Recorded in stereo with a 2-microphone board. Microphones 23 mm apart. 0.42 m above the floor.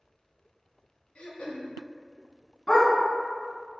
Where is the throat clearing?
75° left (ahead or behind), 0.5 m.